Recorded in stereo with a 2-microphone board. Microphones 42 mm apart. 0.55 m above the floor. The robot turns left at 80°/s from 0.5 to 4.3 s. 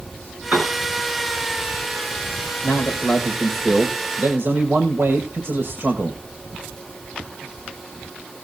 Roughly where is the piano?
Right.